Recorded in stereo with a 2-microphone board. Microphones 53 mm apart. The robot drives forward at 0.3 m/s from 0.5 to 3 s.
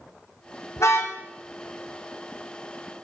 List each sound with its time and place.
0.8 s a car horn: 70° left (ahead or behind), 4 m; by 1.1 s 75° left (ahead or behind), 4 m